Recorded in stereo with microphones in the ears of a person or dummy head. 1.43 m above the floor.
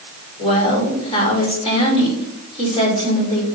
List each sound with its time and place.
0.4 s a woman speaking: 30° left (ahead or behind), 5 m